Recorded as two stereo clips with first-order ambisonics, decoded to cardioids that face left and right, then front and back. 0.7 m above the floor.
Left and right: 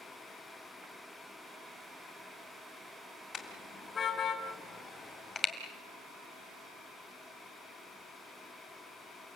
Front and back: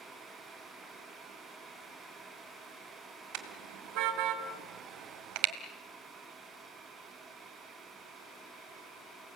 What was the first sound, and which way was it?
A car horn, 155° left.